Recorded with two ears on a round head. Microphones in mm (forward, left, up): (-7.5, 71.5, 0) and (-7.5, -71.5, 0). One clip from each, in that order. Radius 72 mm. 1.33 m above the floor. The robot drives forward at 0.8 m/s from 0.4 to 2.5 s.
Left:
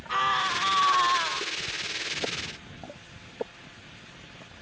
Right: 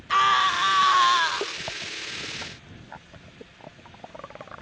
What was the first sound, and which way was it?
A scream, 35° right (ahead or behind).